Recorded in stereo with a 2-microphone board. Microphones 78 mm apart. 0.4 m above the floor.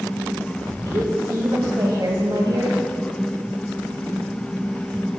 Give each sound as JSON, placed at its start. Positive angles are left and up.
{"t": 0.8, "sound": "a woman speaking", "side_deg": -55, "distance_m": 2.5}